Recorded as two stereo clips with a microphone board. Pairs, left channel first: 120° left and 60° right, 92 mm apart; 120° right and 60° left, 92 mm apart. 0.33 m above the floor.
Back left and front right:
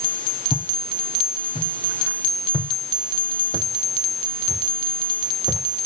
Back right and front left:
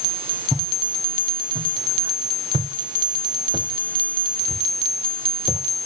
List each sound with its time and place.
0.5 s footsteps: 110° left, 4 m; by 5.6 s 75° left, 5 m